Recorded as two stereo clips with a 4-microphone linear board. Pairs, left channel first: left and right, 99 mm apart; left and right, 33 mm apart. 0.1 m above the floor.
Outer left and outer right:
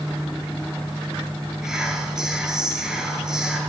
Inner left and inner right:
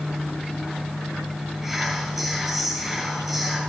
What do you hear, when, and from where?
1.6 s whispering: 5° right (ahead or behind), 1.4 m